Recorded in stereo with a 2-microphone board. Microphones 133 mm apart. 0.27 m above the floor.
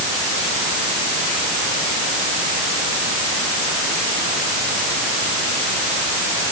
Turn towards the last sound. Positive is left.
No sound to turn to.